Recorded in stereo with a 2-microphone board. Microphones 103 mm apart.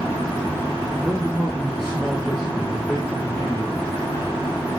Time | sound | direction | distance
1.0 | a man speaking | 5° right (ahead or behind) | 2.5 m